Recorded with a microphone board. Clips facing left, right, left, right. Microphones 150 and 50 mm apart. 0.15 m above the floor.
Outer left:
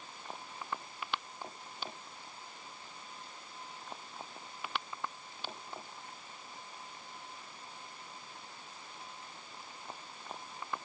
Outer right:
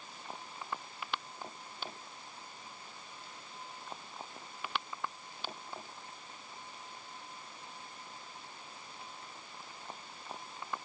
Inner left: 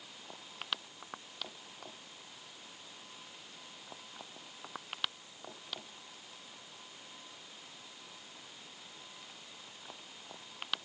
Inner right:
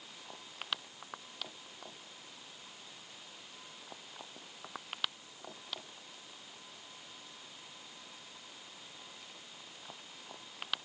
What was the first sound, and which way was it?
Only background noise.